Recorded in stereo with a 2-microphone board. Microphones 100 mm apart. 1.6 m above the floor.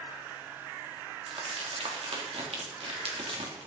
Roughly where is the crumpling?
Right.